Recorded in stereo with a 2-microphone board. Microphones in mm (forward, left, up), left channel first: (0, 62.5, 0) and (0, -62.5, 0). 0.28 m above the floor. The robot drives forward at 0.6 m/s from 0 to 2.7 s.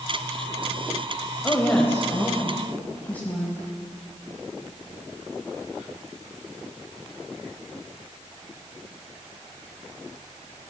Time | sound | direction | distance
1.4 | a woman speaking | 20° left (ahead or behind) | 0.9 m